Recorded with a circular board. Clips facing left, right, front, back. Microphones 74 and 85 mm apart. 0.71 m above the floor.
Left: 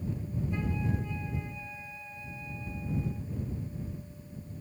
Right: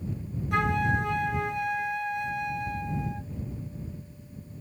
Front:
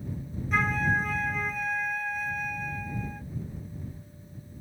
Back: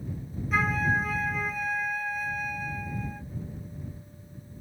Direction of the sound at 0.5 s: 90° right.